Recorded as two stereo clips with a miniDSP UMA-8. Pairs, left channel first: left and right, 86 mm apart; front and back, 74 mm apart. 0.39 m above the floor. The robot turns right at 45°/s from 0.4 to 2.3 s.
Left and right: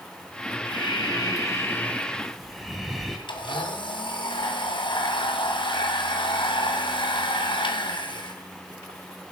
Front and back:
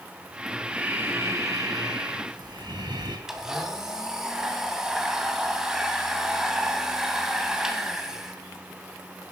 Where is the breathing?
105° left, 2 m; by 3.2 s straight behind, 2 m.